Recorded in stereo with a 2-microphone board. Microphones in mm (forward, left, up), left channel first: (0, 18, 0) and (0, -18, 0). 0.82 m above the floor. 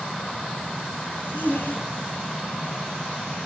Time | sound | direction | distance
1.1 | a zipper | 65° left (ahead or behind) | 4.5 m